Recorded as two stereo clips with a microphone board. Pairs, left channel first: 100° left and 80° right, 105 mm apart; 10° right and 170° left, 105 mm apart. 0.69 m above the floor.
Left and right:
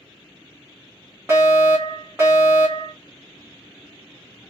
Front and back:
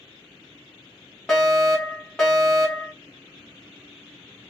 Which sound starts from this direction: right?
A fire alarm, at 1.3 s.